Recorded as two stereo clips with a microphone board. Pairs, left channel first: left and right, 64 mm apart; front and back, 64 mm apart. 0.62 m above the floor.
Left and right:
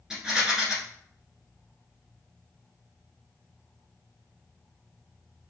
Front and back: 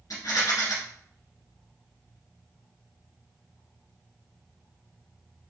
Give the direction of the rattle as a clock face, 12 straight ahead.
12 o'clock.